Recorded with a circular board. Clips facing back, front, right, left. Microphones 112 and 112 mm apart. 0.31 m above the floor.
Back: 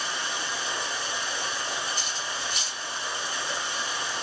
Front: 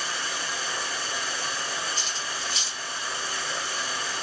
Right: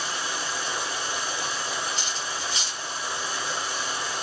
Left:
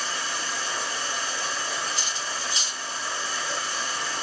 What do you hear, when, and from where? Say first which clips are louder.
0.0 s running water: even, right 1 dB; 140° right, 1.2 m
2.0 s cutlery clinking: even, even; 155° right, 2.5 m